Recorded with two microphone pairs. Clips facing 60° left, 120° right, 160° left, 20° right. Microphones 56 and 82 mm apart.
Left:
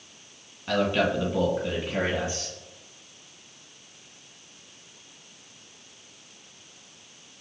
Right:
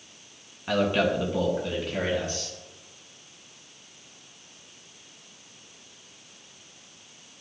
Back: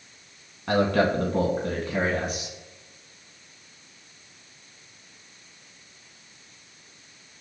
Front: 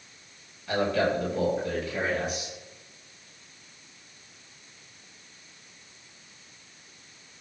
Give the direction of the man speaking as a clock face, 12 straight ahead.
6 o'clock.